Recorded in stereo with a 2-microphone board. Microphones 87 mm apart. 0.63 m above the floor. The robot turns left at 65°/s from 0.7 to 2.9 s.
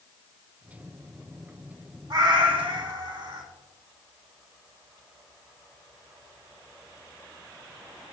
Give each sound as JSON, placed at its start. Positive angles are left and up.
{"t": 2.1, "sound": "a cat meowing", "azimuth_deg": -60, "distance_m": 1.2}